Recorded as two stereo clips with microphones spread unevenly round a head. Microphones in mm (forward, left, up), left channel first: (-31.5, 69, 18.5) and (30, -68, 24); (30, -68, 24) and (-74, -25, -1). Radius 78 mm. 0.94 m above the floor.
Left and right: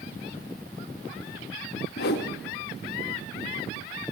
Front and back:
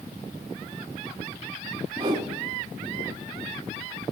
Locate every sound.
2.0 s a whoosh: 95° left, 1.1 m